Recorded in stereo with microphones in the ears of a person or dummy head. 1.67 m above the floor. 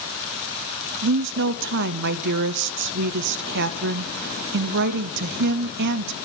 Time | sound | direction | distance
1.0 | a woman speaking | 60° right (ahead or behind) | 0.5 m